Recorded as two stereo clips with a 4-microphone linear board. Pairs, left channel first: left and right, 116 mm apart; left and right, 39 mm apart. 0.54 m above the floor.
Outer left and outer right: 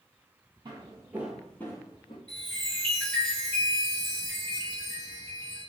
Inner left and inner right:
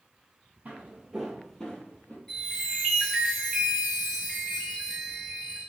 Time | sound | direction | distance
0.7 | footsteps | 40° right (ahead or behind) | 0.8 m
2.3 | a chime | 20° left (ahead or behind) | 1.8 m